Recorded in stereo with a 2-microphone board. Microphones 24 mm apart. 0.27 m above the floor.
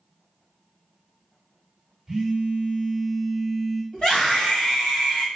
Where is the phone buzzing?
20° right (ahead or behind), 1.6 m.